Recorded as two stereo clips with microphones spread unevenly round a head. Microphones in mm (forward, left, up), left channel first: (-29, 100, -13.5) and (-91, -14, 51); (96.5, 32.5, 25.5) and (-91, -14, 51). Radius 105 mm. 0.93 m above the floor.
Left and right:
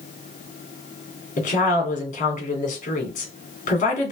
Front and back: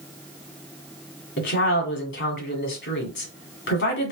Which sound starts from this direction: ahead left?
A woman speaking, at 1.4 s.